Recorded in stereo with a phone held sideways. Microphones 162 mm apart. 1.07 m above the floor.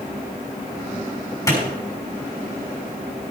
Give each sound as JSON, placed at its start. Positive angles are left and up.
{"t": 1.5, "sound": "a clap", "side_deg": 20, "distance_m": 6.0}